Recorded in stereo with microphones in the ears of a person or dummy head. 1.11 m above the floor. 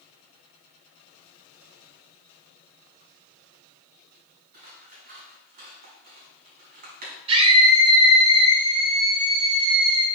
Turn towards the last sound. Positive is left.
turn(degrees=-35)  # may be behind; listen again after turning